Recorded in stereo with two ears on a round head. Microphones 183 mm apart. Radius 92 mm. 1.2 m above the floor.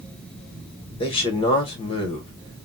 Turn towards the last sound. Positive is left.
turn(degrees=25)  # may be behind; listen again after turning